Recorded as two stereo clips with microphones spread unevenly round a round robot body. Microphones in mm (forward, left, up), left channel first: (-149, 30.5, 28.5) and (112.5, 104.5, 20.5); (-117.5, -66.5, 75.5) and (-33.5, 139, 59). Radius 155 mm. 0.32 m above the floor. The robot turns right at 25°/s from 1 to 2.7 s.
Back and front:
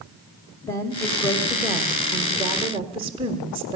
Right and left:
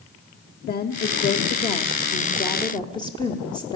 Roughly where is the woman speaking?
Right.